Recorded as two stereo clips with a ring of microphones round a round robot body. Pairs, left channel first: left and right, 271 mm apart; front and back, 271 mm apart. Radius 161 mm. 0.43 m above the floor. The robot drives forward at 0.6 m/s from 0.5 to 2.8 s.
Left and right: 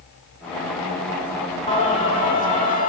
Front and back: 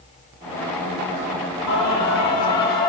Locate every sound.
1.7 s singing: 25° left, 4.5 m; by 2.9 s 30° left, 4 m